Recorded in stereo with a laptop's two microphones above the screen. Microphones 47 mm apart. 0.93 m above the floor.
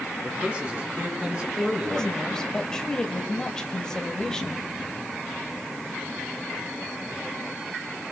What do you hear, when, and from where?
0.2 s a man speaking: 25° right (ahead or behind), 7.5 m; by 2.2 s 20° right (ahead or behind), 9 m
1.6 s a woman speaking: 10° left (ahead or behind), 5 m